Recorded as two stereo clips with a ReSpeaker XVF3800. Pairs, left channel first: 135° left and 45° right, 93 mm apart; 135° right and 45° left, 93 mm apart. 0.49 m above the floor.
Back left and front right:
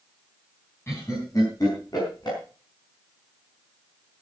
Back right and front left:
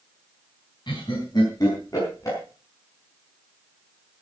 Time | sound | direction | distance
0.9 | laughter | 165° right | 3.5 m